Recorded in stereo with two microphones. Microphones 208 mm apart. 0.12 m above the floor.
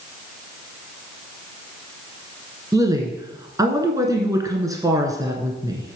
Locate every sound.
2.7 s a woman speaking: 15° right (ahead or behind), 1.1 m